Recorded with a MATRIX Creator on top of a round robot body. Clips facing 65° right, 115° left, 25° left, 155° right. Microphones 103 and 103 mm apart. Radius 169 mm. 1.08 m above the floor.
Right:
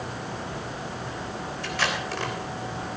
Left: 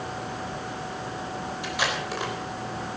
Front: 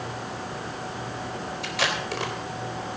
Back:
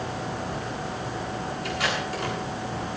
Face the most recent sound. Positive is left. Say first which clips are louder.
# right 1 dB, front 1 dB
turn(degrees=35)